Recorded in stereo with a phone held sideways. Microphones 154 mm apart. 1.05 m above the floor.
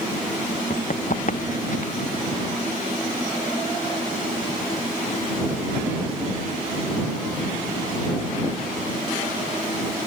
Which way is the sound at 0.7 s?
60° left (ahead or behind).